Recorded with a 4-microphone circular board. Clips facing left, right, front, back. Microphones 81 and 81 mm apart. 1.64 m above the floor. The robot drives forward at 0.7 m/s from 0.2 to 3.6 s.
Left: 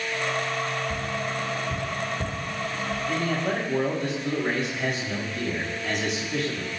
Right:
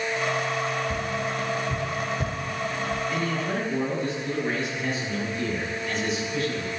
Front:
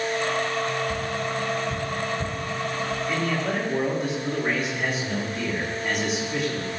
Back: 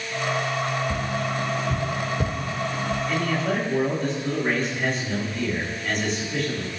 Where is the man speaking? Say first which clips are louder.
Left 1 dB, back 1 dB; 80° left, 4.5 m; by 6.7 s 85° left, 4.5 m.